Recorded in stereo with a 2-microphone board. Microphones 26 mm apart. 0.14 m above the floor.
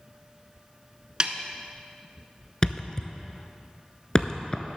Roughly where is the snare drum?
Right.